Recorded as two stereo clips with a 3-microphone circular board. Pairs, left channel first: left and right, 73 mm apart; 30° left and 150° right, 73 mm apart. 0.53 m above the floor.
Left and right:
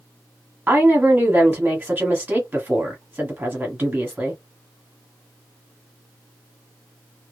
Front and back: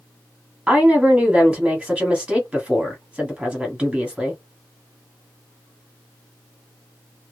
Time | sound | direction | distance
0.7 | a woman speaking | 100° right | 1.2 m